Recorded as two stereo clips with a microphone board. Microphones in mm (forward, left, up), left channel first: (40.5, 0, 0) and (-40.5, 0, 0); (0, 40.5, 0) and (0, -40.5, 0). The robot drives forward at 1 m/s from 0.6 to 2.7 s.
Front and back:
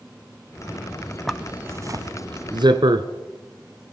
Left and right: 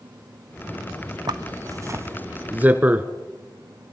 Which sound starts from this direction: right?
A zipper, at 1.3 s.